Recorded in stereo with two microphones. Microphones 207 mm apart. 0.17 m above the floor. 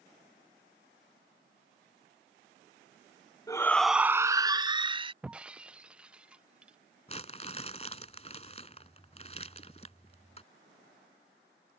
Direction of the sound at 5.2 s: 5° right (ahead or behind).